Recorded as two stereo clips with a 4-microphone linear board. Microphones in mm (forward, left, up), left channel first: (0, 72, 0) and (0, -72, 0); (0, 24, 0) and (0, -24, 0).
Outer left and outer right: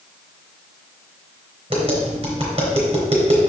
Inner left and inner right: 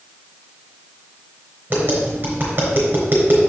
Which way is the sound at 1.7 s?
45° right (ahead or behind).